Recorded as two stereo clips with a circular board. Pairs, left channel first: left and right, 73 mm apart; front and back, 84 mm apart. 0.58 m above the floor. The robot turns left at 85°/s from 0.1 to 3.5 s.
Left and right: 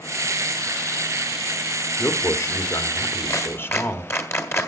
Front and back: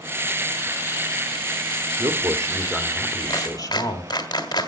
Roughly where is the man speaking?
Behind.